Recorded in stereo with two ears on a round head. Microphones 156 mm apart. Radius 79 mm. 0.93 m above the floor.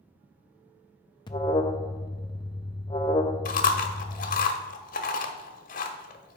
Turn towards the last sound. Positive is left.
turn(degrees=50)  # may be behind; listen again after turning